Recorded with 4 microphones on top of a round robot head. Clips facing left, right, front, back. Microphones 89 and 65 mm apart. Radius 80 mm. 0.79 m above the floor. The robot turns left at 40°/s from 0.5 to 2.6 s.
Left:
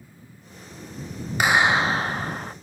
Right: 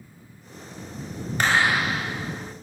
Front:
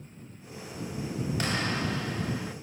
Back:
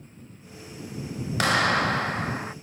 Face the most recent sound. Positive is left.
turn(degrees=120)